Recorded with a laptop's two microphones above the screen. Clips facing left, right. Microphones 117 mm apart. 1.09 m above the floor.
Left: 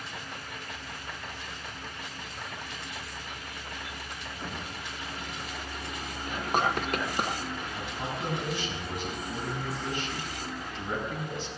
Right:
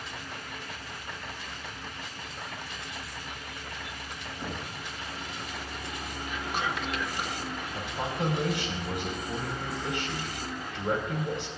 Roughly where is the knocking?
Right.